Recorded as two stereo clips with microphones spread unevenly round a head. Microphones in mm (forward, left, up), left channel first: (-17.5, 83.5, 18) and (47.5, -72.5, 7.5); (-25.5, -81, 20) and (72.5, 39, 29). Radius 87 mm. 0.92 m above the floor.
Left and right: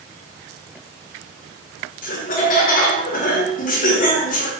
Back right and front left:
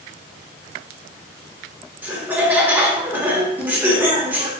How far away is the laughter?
About 0.9 m.